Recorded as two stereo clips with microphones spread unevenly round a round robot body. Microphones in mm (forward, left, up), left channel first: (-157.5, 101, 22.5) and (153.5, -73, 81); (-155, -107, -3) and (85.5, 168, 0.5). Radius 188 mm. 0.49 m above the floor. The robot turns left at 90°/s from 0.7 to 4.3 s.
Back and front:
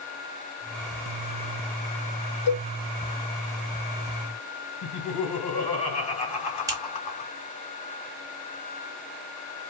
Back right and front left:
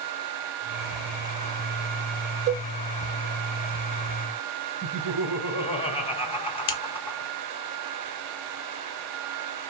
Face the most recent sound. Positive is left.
turn(degrees=-110)